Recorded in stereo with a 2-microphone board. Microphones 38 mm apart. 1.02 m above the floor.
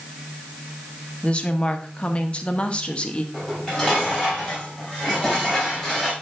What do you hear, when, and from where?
1.2 s a woman speaking: 30° left (ahead or behind), 1.0 m
3.3 s dishes clattering: 10° left (ahead or behind), 4.5 m